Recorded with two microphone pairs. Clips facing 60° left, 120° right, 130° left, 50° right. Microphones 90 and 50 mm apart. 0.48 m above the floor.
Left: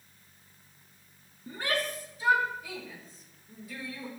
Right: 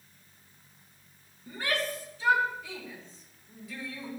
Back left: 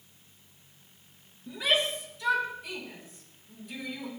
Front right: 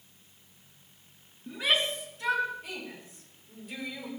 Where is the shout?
10° right, 7.5 m; by 4.1 s 25° right, 10.5 m.